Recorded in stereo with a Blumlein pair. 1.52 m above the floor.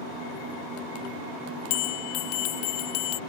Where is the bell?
45° left.